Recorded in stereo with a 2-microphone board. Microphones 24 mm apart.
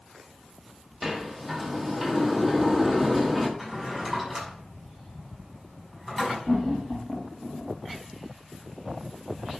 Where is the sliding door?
5° left (ahead or behind), 1.7 m.